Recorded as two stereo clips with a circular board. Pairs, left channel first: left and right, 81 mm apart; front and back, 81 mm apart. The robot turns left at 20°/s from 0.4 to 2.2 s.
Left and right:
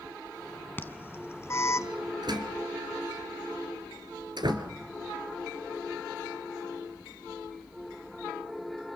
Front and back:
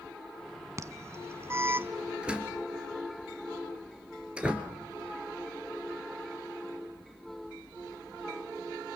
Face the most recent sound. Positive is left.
turn(degrees=-105)